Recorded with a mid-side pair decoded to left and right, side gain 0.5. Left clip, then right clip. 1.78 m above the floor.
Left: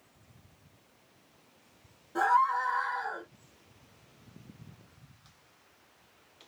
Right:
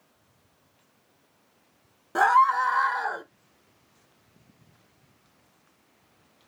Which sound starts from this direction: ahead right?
A scream, at 2.1 s.